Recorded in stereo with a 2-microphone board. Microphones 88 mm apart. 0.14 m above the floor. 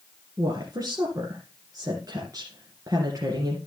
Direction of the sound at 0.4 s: 45° right (ahead or behind).